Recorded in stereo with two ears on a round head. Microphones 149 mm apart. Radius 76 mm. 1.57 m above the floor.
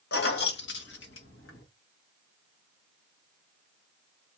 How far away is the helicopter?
I don't hear a helicopter.